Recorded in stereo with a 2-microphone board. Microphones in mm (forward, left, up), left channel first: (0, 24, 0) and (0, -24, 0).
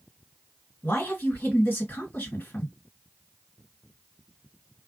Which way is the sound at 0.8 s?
40° left (ahead or behind).